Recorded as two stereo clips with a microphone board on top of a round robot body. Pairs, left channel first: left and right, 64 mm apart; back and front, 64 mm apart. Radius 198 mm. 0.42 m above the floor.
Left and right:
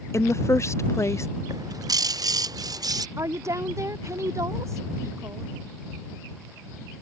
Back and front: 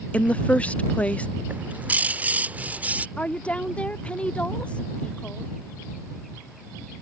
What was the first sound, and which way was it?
A woman speaking, 115° left.